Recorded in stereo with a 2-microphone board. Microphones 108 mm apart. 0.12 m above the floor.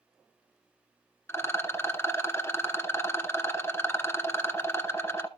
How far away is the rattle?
About 0.9 m.